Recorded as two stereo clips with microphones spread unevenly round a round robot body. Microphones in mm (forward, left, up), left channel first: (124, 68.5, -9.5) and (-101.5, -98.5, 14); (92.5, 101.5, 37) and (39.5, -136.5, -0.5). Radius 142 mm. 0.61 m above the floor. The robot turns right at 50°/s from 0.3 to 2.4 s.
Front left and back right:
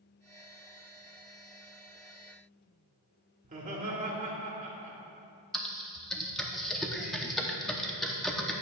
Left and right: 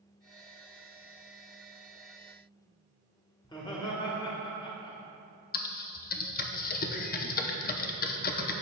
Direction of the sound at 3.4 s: 155° left.